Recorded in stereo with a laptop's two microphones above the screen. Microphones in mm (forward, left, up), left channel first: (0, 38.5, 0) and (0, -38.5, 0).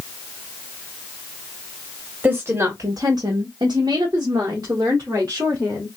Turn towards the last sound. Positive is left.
turn(degrees=-40)  # may be behind; listen again after turning